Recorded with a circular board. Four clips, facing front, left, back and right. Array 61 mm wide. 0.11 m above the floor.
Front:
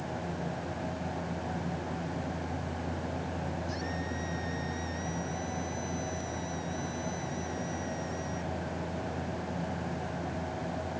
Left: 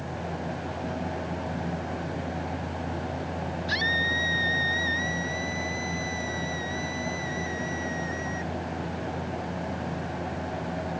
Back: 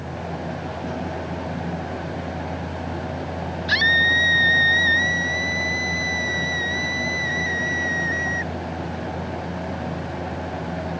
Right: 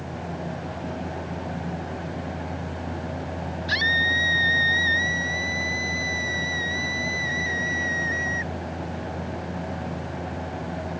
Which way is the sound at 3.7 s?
165° right.